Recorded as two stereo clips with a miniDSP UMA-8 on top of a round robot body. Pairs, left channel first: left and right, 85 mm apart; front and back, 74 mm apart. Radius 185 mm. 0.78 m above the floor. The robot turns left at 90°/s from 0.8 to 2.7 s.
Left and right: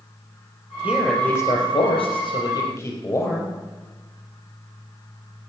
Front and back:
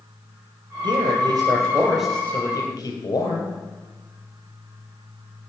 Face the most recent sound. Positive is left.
turn(degrees=25)